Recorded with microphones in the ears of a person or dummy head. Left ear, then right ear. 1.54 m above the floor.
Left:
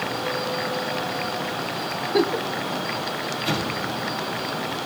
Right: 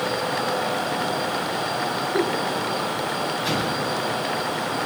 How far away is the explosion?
About 10 m.